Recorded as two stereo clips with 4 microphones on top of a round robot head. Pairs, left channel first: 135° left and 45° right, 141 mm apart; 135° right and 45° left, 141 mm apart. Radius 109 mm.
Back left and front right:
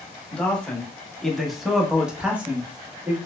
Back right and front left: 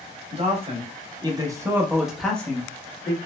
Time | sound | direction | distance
0.3 | a man speaking | 55° left | 1.3 m